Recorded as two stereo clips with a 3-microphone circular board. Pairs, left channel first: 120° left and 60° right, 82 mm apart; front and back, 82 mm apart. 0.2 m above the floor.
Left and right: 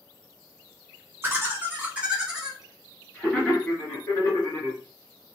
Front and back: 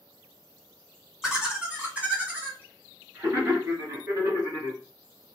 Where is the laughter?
100° right, 1.7 m; by 4.8 s 155° left, 1.8 m.